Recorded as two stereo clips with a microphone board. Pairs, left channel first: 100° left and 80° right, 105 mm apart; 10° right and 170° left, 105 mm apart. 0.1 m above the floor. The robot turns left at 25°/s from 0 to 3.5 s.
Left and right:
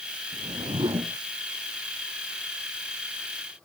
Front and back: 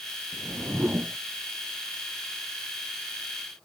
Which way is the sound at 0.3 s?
110° right.